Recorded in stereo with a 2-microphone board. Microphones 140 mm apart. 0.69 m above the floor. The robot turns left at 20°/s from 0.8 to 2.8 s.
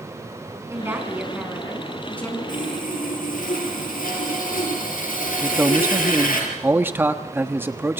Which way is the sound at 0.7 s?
160° right.